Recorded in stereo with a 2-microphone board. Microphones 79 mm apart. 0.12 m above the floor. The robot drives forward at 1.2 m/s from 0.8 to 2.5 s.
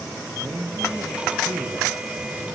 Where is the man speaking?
35° right (ahead or behind), 4 m; by 1.9 s 45° right (ahead or behind), 3.5 m.